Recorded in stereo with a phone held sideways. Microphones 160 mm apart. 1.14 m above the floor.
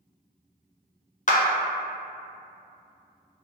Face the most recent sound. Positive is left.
turn(degrees=50)  # may be behind; listen again after turning